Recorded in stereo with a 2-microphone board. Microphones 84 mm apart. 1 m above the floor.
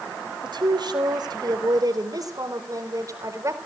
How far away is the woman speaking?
About 4 m.